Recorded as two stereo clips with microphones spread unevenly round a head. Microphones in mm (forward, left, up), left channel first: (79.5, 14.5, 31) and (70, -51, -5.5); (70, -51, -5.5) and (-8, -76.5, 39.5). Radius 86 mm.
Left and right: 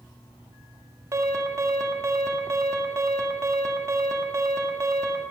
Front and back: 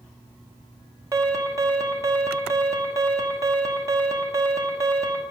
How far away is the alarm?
About 1.5 m.